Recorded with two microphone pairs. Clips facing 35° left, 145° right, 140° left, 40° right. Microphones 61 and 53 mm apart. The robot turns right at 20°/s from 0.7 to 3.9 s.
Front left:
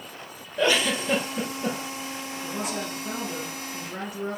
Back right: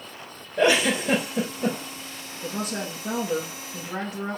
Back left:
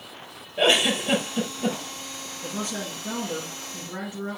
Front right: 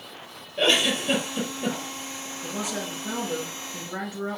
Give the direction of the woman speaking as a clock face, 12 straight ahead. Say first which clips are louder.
Back right 2 dB, even; 4 o'clock.